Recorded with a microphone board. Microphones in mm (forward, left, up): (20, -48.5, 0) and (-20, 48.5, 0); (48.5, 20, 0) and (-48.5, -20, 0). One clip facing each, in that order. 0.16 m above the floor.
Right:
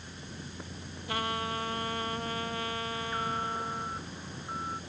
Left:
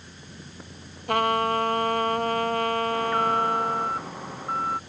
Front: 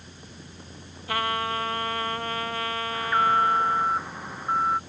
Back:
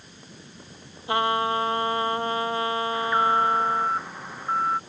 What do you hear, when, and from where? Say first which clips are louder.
1.1 s a trumpet: left 11 dB, back 4 dB; 135° left
2.9 s an alarm: left 11 dB, front 1 dB; 110° left